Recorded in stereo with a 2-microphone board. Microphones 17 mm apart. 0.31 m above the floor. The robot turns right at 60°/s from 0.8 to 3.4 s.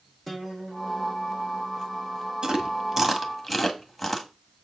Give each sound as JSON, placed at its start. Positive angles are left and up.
{"t": 0.3, "sound": "a guitar", "azimuth_deg": 165, "distance_m": 3.5}
{"t": 2.4, "sound": "chewing", "side_deg": -50, "distance_m": 1.5}